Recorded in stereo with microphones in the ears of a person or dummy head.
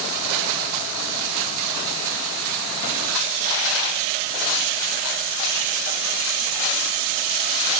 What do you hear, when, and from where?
Only background noise.